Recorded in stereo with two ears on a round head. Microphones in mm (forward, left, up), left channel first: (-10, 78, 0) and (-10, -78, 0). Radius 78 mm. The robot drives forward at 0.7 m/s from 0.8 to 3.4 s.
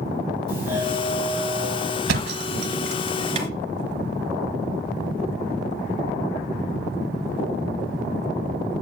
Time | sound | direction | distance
0.5 | a doorbell | 25° left (ahead or behind) | 5 m
2.1 | a thud | 70° right (ahead or behind) | 1.0 m